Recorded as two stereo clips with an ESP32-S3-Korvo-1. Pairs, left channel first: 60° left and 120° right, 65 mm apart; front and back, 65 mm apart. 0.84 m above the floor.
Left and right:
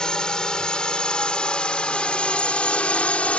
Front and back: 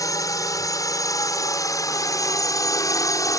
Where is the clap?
I don't hear a clap.